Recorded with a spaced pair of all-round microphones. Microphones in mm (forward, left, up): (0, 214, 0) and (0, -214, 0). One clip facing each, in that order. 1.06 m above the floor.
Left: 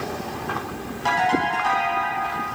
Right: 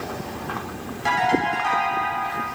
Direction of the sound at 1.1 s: 40° right (ahead or behind).